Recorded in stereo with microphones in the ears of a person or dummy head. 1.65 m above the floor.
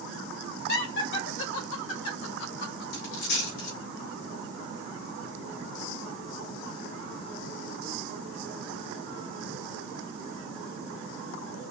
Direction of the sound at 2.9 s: 65° left (ahead or behind).